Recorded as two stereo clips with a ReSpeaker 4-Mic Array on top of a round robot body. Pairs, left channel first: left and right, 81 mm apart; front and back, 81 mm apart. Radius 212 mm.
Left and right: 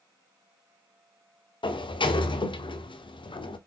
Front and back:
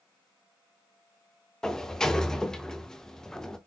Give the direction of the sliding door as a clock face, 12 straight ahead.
9 o'clock.